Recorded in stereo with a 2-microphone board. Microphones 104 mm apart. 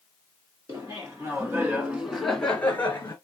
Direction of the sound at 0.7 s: 35° right (ahead or behind).